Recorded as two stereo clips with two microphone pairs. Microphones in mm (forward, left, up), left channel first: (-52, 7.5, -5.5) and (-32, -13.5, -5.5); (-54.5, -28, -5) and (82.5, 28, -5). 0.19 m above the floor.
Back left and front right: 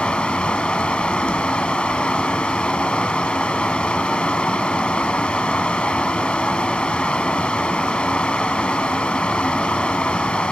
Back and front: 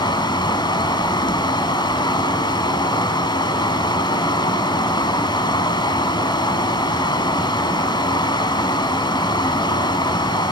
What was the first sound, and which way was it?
Running water, 160° left.